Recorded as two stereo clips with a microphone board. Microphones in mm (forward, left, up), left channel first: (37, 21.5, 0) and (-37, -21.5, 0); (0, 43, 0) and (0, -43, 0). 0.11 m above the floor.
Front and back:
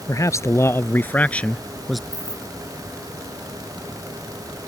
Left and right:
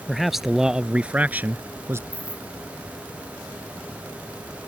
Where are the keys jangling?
90° left.